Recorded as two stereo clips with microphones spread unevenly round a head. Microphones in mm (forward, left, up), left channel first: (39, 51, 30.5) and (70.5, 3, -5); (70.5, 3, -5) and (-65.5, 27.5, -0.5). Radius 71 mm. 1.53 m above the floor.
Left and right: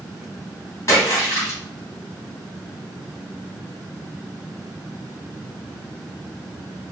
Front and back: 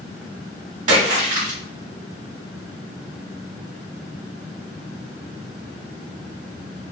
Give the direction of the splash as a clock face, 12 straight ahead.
7 o'clock.